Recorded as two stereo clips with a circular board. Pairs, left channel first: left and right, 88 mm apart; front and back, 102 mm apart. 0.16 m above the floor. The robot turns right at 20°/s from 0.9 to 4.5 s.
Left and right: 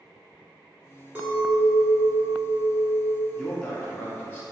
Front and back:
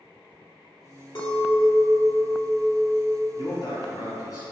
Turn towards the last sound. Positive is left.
turn(degrees=30)